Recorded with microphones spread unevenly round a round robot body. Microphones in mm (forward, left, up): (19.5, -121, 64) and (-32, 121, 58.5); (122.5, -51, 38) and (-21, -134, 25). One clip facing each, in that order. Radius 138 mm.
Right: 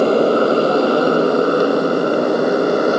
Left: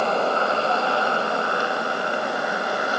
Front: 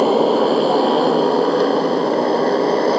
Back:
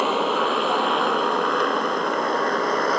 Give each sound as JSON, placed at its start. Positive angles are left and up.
{"t": 0.0, "sound": "a motorcycle", "azimuth_deg": -20}